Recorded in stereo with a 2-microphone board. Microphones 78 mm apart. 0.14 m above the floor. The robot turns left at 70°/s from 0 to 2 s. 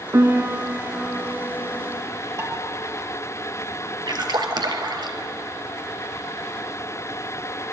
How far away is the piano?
About 1.1 m.